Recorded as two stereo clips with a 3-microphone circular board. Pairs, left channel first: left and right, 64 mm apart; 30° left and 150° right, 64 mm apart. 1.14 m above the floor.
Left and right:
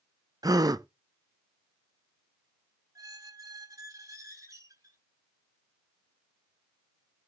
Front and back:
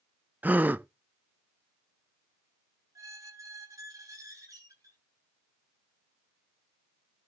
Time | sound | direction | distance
0.4 | a gasp | 90° right | 0.6 m
3.0 | a squeak | 115° right | 7.5 m